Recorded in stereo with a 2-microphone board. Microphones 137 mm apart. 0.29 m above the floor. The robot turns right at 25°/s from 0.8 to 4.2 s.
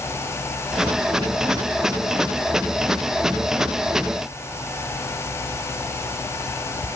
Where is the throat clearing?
No throat clearing in this recording.